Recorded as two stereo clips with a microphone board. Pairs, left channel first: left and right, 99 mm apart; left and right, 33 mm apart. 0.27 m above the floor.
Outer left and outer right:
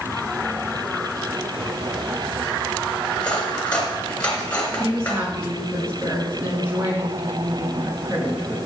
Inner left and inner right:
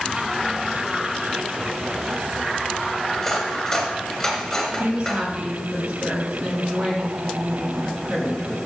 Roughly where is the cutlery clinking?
Centre.